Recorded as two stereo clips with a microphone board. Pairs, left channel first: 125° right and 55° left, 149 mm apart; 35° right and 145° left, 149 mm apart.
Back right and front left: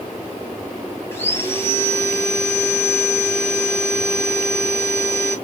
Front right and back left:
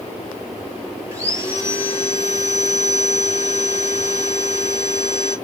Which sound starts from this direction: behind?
Sawing, at 1.1 s.